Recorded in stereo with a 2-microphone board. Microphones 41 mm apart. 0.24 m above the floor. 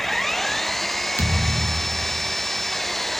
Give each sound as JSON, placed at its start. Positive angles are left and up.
{"t": 0.0, "sound": "an engine running", "side_deg": 5}
{"t": 1.2, "sound": "a thud", "side_deg": 75}